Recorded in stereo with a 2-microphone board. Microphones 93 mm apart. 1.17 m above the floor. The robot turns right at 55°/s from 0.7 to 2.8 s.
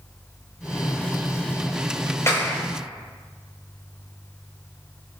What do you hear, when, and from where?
2.3 s a clap: 35° left (ahead or behind), 4.5 m; by 2.6 s 15° left (ahead or behind), 4.5 m